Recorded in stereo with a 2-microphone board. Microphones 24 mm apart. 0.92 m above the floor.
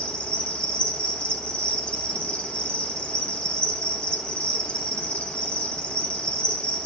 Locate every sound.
0.0 s an insect: 50° left (ahead or behind), 1.9 m